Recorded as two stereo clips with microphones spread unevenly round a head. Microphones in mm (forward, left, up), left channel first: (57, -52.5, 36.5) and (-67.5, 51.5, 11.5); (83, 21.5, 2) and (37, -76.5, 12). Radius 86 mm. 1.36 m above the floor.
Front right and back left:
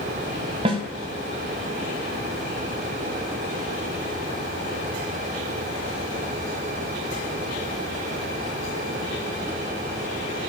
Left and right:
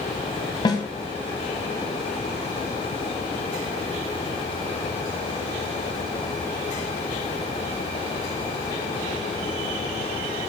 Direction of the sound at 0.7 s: 90° left.